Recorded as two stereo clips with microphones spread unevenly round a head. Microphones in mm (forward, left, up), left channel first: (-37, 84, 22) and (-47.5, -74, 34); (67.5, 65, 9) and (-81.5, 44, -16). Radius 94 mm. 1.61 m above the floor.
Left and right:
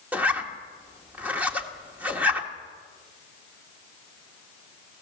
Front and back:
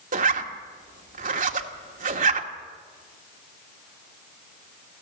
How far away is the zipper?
About 1.5 m.